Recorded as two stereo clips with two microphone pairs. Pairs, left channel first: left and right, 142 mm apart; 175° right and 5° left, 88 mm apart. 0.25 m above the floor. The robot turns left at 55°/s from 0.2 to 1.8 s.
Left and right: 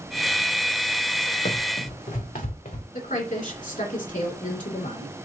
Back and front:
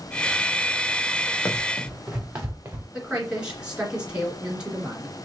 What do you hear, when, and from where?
1.4 s running footsteps: 115° left, 1.9 m; by 2.8 s 70° left, 1.9 m
2.9 s a woman speaking: 85° left, 2.5 m